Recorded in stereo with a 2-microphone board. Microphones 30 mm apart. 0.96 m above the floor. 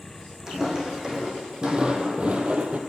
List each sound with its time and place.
0.5 s footsteps: 20° right (ahead or behind), 2.5 m; by 2.8 s 45° right (ahead or behind), 1.3 m